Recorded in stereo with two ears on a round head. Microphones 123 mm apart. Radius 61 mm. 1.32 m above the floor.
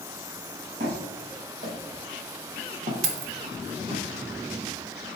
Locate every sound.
0.8 s footsteps: 55° right (ahead or behind), 3.5 m; by 4.0 s 30° right (ahead or behind), 3 m
3.0 s keys jangling: 50° right (ahead or behind), 0.8 m